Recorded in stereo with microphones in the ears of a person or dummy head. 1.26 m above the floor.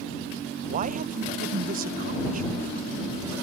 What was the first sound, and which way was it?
A man speaking, 40° right (ahead or behind).